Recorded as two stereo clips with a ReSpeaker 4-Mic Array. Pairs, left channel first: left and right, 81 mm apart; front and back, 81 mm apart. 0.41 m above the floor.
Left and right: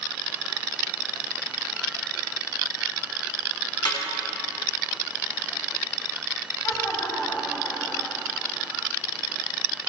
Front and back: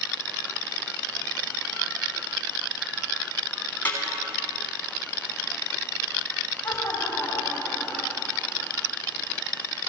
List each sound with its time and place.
3.9 s a snare drum: 70° left, 3.5 m
6.6 s laughter: 65° left, 2.5 m